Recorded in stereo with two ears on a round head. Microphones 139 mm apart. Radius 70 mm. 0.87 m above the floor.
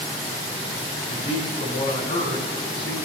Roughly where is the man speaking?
Left.